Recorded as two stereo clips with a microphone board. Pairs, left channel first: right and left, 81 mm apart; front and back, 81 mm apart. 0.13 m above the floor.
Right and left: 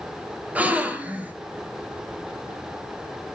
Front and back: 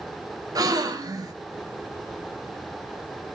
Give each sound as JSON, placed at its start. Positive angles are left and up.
{"t": 0.6, "sound": "a gasp", "azimuth_deg": 160, "distance_m": 1.0}